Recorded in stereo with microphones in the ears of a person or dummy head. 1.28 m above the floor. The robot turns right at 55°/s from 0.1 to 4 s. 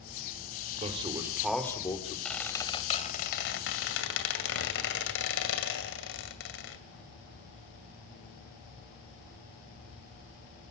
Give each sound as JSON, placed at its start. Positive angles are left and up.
{"t": 0.8, "sound": "a man speaking", "azimuth_deg": -40, "distance_m": 3.0}
{"t": 2.2, "sound": "a squeak", "azimuth_deg": 0, "distance_m": 2.5}